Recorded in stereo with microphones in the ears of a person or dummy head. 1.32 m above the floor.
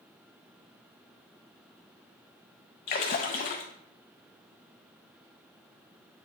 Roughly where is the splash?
Left.